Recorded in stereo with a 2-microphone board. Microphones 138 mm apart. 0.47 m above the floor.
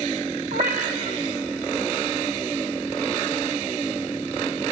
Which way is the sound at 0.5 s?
60° right (ahead or behind).